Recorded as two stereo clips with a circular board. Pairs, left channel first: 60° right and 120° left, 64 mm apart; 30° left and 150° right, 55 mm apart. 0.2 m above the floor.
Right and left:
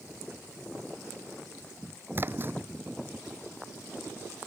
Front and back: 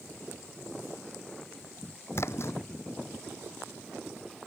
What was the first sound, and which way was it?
A splash, 65° left.